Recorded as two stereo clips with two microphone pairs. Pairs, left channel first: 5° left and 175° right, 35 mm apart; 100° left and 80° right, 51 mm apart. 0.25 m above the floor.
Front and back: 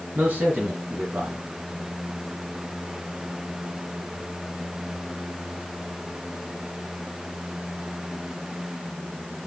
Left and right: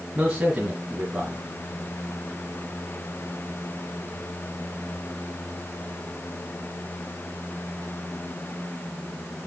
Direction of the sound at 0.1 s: 150° right.